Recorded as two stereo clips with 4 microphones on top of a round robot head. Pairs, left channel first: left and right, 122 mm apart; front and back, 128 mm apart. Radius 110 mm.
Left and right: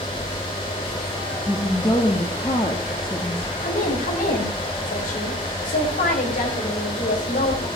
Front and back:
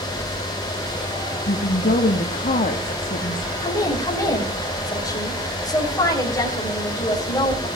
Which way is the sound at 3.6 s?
60° left.